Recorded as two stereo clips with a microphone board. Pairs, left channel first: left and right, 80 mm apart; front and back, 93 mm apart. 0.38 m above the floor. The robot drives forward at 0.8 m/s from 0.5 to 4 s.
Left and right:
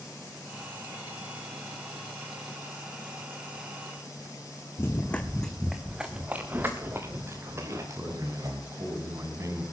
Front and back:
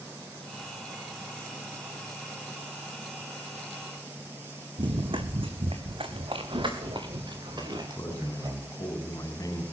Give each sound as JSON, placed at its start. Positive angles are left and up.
{"t": 4.8, "sound": "running footsteps", "azimuth_deg": 150, "distance_m": 1.7}
{"t": 7.5, "sound": "a man speaking", "azimuth_deg": -45, "distance_m": 3.5}